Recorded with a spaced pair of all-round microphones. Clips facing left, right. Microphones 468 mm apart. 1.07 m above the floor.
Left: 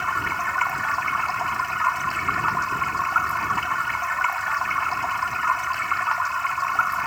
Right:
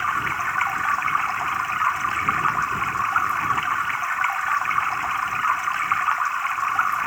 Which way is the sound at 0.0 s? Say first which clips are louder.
Even; 60° left (ahead or behind).